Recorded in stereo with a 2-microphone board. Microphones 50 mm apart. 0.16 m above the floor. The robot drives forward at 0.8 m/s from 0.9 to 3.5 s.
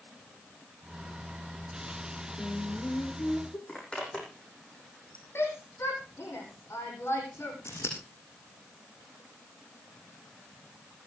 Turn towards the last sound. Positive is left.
turn(degrees=70)  # may be behind; listen again after turning